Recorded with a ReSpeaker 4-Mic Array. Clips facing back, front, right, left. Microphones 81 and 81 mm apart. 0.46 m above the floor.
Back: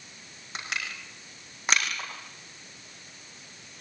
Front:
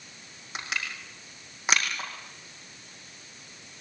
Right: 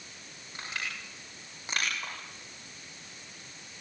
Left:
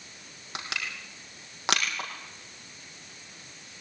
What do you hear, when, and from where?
0.6 s crushing: 90° left, 6 m